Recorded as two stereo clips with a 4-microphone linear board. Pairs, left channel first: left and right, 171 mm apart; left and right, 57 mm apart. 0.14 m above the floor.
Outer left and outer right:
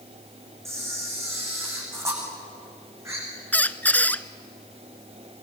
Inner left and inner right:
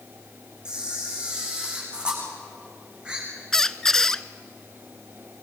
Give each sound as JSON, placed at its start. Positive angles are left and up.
{"t": 0.7, "sound": "a camera shutter", "side_deg": -15, "distance_m": 6.5}
{"t": 3.5, "sound": "a squeak", "side_deg": 10, "distance_m": 0.6}